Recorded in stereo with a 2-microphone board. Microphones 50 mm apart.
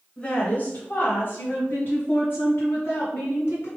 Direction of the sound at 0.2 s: 25° left (ahead or behind).